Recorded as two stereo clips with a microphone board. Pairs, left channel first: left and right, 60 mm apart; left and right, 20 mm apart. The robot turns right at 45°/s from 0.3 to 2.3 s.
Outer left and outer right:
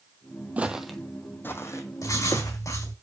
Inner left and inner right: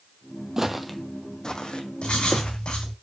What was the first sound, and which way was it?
Footsteps, 25° right (ahead or behind).